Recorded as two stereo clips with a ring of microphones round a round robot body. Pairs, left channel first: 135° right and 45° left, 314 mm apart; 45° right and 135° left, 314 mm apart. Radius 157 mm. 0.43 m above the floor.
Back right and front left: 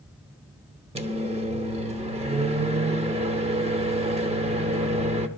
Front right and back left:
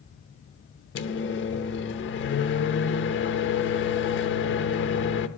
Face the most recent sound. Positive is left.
turn(degrees=-15)